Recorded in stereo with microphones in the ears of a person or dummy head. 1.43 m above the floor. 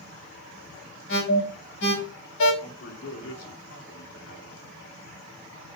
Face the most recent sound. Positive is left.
turn(degrees=80)